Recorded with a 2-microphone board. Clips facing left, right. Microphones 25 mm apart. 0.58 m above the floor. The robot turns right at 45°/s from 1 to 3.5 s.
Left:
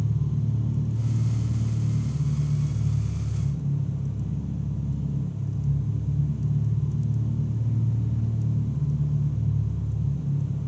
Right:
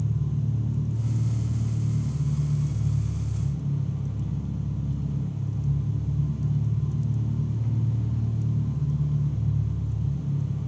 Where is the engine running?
150° left, 3 m; by 10.7 s 95° right, 3 m.